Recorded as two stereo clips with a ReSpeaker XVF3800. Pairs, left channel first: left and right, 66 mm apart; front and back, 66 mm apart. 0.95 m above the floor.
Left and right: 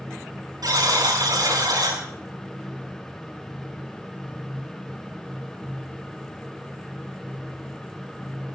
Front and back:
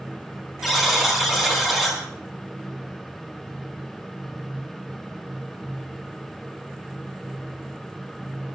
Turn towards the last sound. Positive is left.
turn(degrees=-95)